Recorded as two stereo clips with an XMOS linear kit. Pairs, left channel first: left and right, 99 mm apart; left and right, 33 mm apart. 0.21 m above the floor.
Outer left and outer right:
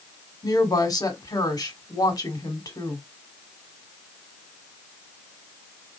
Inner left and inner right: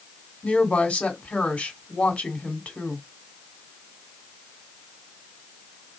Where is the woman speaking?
40° left (ahead or behind), 1.4 m.